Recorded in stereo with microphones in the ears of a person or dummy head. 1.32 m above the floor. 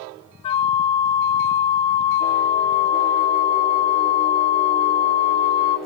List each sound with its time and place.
0.4 s a flute: 25° left (ahead or behind), 0.5 m